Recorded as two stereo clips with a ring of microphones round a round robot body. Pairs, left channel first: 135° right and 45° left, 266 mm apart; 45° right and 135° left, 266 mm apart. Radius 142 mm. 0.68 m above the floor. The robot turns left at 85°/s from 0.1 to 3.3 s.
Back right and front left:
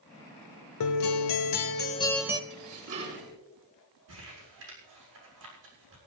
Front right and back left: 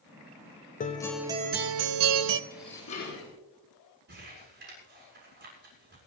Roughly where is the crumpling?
Left.